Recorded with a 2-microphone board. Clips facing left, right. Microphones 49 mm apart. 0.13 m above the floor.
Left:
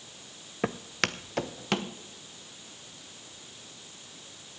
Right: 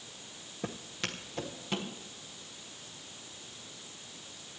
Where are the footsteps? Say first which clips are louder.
Left 9 dB; 85° left, 0.6 m.